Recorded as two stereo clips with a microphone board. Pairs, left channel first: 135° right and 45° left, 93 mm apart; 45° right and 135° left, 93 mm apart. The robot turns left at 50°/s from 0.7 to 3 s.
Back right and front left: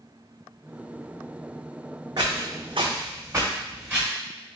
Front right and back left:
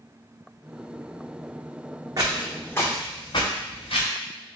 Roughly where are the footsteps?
Left.